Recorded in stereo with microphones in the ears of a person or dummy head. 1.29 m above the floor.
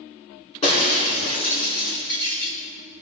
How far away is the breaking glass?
About 4 m.